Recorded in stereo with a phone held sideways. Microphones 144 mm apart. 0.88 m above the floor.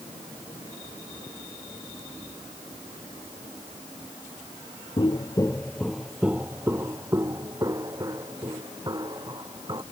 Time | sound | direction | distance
5.0 | footsteps | 35° left (ahead or behind) | ?